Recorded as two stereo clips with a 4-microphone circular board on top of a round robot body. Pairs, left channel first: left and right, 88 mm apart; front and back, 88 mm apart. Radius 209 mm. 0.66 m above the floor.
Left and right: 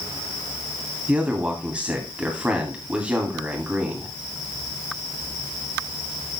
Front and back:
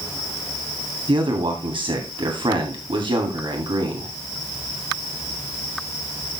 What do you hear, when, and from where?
1.1 s a man speaking: 165° right, 2.5 m